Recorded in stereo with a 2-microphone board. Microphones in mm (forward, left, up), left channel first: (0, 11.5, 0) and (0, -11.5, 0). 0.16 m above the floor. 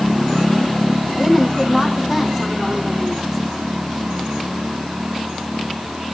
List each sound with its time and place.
1.2 s a woman speaking: 20° right (ahead or behind), 5.5 m